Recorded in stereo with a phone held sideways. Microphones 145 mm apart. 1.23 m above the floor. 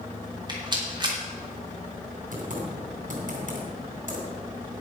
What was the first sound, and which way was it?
A rattle, 30° right (ahead or behind).